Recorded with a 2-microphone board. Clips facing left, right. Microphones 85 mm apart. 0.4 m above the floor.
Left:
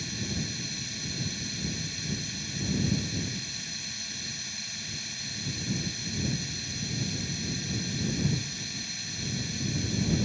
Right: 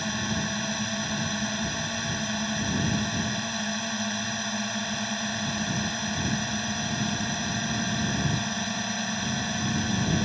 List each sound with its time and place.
0.0 s a drone: 60° right (ahead or behind)